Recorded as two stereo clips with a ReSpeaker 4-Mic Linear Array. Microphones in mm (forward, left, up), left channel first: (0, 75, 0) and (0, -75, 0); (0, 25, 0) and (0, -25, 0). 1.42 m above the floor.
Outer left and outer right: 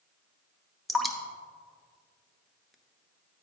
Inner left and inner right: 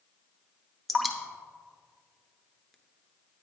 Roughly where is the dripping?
Centre.